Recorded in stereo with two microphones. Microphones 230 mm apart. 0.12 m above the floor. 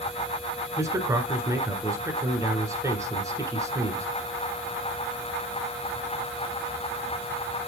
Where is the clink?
I don't hear a clink.